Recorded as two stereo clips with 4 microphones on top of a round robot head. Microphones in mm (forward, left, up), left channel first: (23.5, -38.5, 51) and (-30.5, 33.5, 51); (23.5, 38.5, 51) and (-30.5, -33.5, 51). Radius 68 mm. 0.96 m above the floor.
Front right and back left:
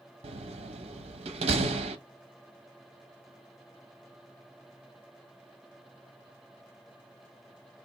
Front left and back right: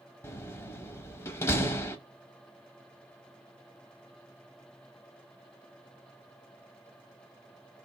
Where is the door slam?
115° left, 0.8 m.